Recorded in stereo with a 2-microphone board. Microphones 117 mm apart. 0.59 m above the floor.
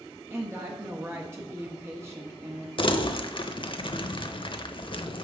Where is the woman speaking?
20° right (ahead or behind), 1.0 m.